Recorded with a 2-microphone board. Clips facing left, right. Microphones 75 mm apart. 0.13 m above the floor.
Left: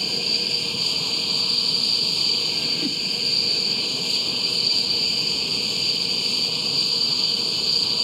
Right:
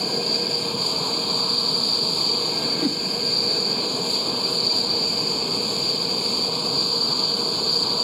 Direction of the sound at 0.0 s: 35° right (ahead or behind).